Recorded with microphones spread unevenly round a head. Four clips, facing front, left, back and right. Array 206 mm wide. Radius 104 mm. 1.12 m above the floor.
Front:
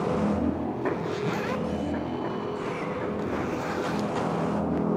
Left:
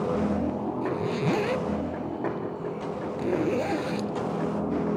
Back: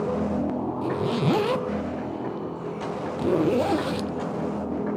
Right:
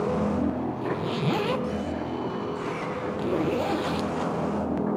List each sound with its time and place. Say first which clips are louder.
0.8 s a zipper: left 2 dB, back 5 dB; straight behind, 0.7 m